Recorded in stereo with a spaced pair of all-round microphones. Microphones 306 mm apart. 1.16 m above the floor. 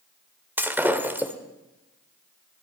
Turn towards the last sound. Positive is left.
turn(degrees=-5)  # may be behind; listen again after turning